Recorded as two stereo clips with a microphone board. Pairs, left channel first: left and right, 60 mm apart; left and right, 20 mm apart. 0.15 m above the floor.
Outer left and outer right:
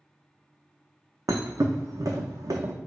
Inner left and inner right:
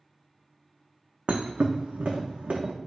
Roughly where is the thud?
Right.